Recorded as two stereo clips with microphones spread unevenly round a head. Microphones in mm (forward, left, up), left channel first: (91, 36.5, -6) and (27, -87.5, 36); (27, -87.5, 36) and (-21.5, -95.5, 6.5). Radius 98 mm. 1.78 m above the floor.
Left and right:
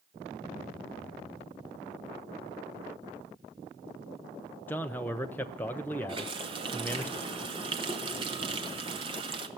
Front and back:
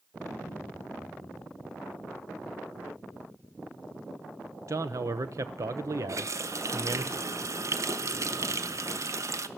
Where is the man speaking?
165° left, 0.6 m.